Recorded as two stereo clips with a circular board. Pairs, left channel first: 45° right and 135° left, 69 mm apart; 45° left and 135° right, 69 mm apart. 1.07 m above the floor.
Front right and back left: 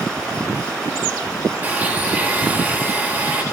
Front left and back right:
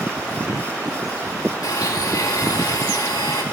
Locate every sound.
1.6 s a blender: 70° left, 1.8 m